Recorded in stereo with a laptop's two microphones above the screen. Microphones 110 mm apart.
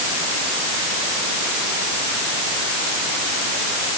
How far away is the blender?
I don't hear a blender.